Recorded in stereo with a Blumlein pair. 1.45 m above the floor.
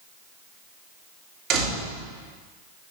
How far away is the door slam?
About 3 m.